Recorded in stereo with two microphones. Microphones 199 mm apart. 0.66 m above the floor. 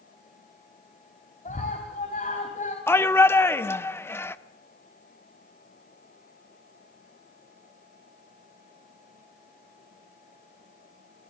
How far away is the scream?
About 3.5 m.